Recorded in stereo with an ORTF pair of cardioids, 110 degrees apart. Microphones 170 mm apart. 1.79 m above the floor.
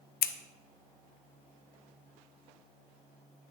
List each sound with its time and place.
0.2 s scissors: 60° left, 0.7 m